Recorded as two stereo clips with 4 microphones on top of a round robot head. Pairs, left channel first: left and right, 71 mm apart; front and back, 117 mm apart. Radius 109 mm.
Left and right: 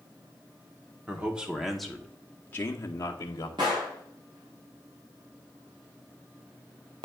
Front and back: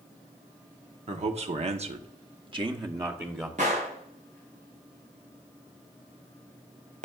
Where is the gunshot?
140° right, 0.6 m.